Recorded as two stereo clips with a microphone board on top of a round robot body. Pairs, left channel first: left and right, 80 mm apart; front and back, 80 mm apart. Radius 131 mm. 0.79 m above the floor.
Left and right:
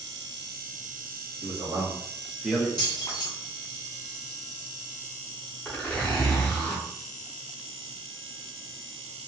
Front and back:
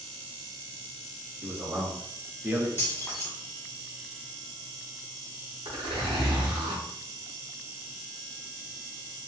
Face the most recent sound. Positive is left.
turn(degrees=165)